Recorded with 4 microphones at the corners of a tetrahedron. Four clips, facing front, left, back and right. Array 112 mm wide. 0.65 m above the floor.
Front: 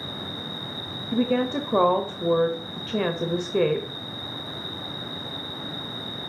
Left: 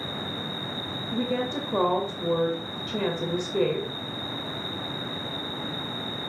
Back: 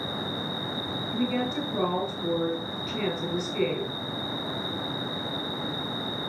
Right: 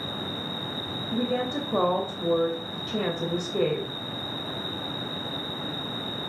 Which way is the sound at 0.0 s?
85° left.